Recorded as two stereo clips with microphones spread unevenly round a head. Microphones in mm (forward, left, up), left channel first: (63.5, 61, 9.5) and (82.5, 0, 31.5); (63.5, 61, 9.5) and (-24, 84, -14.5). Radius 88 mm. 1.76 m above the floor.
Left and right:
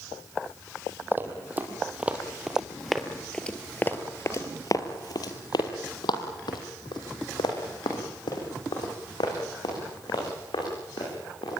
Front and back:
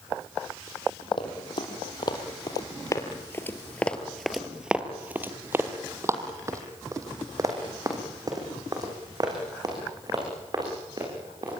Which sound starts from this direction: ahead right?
Running footsteps, at 1.1 s.